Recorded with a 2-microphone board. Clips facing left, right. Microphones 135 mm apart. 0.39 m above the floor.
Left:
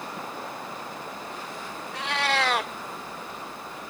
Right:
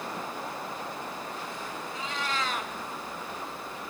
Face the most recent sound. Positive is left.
turn(degrees=75)  # may be behind; listen again after turning